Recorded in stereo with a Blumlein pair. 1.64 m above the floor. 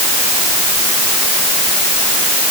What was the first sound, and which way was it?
Only background noise.